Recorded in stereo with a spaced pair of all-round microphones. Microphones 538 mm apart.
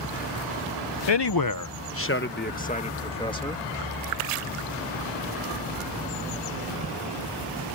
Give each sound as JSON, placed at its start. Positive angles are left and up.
{"t": 1.1, "sound": "a man speaking", "side_deg": 60}